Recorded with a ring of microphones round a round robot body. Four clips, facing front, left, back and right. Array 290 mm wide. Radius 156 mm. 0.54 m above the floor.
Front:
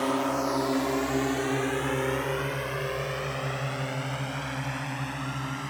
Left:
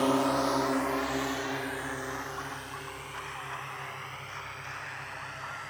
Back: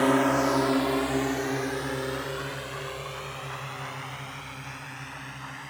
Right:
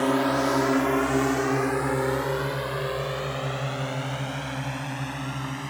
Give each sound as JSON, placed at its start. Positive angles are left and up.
{"t": 0.0, "sound": "a drone", "azimuth_deg": -155}